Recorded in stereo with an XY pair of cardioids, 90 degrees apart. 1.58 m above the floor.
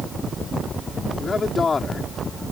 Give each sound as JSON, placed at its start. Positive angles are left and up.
{"t": 1.2, "sound": "a man speaking", "azimuth_deg": 40}